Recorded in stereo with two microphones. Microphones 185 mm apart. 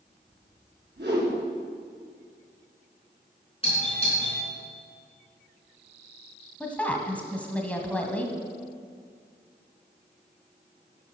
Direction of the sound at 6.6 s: 5° left (ahead or behind).